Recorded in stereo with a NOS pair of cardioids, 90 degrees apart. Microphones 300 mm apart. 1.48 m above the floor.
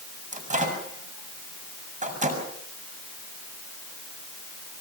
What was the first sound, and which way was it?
A microwave, 25° right.